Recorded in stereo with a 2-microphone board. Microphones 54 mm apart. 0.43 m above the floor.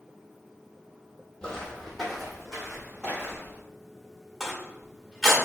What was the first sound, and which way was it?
Footsteps, 15° left (ahead or behind).